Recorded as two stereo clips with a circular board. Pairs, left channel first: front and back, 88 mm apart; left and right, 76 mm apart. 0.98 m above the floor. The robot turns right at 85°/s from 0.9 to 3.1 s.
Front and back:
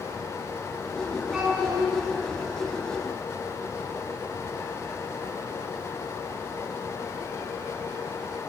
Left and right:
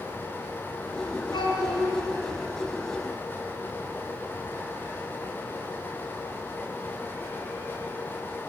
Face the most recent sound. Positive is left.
turn(degrees=-115)